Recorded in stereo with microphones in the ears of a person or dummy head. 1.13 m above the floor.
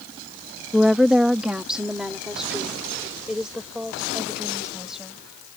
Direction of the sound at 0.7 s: Centre (ahead or behind).